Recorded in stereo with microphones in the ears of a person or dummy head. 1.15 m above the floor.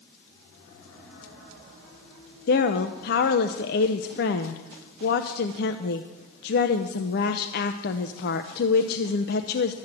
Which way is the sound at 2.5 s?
50° left (ahead or behind).